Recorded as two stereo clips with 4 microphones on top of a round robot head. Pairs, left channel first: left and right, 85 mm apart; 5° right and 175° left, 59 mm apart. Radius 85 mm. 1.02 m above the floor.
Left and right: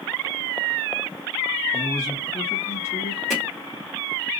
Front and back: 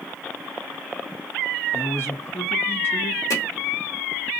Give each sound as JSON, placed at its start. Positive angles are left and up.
{"t": 1.7, "sound": "a man speaking", "azimuth_deg": 30, "distance_m": 1.8}
{"t": 3.3, "sound": "hammering", "azimuth_deg": 5, "distance_m": 2.0}